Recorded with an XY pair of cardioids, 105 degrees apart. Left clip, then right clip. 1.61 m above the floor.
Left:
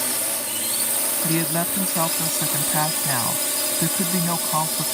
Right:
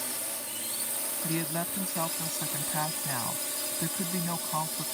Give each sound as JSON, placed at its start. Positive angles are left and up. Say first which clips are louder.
{"t": 0.0, "sound": "a drone", "louder": "left 10 dB", "azimuth_deg": 65}
{"t": 1.2, "sound": "a woman speaking", "louder": "left 8 dB", "azimuth_deg": 55}